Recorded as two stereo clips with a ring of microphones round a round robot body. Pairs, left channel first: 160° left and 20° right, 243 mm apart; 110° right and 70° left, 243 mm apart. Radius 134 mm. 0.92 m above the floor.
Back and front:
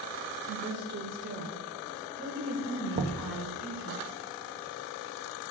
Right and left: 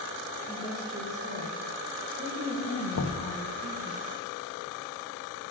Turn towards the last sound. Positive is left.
turn(degrees=-85)